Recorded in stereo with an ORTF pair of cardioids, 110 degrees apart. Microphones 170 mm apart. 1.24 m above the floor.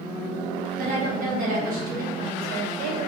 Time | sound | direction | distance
0.8 | a woman speaking | 60° right | 1.6 m